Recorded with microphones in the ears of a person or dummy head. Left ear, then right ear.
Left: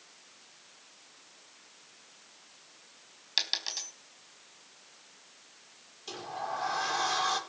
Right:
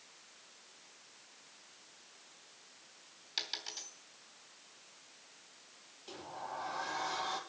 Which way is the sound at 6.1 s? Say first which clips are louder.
Left 8 dB; 60° left (ahead or behind).